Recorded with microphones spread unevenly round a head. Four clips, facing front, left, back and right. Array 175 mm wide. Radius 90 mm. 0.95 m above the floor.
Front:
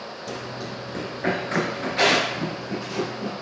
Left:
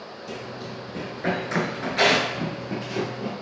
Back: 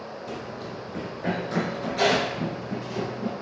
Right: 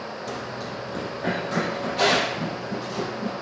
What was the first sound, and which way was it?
Running footsteps, 40° right.